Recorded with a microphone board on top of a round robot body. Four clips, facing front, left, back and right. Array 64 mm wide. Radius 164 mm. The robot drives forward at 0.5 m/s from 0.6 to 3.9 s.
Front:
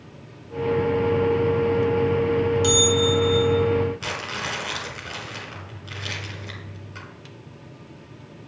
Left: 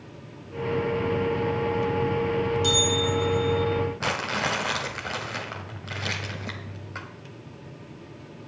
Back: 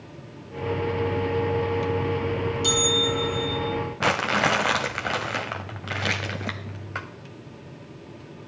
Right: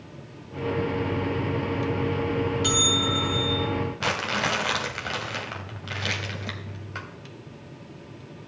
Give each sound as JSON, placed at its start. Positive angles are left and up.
{"t": 2.6, "sound": "a bell", "azimuth_deg": -65, "distance_m": 2.0}
{"t": 4.0, "sound": "crumpling", "azimuth_deg": 175, "distance_m": 0.9}